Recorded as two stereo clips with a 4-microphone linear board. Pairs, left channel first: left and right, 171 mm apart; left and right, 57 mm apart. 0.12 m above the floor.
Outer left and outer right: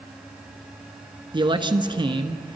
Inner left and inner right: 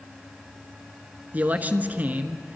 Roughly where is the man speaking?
Right.